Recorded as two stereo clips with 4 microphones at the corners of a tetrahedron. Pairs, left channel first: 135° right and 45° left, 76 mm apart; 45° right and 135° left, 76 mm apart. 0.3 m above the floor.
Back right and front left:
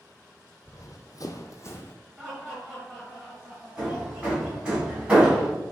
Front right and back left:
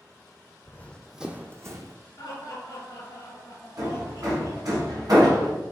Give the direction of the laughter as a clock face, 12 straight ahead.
1 o'clock.